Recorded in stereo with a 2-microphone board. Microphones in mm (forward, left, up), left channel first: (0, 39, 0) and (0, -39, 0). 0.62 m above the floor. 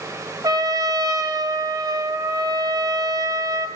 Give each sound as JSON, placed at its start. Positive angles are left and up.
{"t": 0.4, "sound": "a trumpet", "side_deg": -55, "distance_m": 1.0}